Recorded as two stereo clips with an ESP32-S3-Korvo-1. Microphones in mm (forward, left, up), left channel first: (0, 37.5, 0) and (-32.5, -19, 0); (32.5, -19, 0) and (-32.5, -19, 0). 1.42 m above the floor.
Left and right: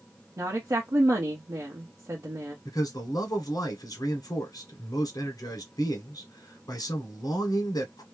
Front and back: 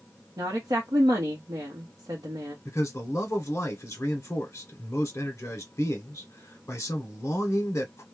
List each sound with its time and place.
0.4 s a woman speaking: 155° right, 0.9 m
2.6 s a man speaking: 50° left, 1.1 m